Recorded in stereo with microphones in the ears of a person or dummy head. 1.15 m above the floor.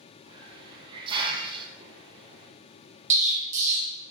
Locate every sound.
0.3 s a hiss: 30° right (ahead or behind), 0.6 m
3.1 s an explosion: 40° right (ahead or behind), 0.9 m